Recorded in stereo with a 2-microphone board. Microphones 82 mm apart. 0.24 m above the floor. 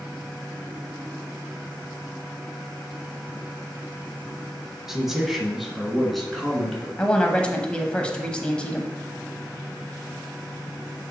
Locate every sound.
4.9 s a man speaking: 5° right (ahead or behind), 1.3 m; by 6.9 s 5° left (ahead or behind), 2.5 m
7.0 s a woman speaking: 15° left (ahead or behind), 1.0 m